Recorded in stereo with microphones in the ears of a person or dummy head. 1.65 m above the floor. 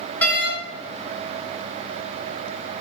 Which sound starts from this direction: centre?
A door slam, at 0.2 s.